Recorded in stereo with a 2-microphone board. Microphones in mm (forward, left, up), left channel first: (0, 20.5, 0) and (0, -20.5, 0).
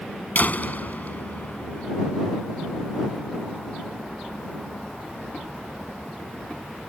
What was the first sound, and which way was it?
A door slam, 50° left (ahead or behind).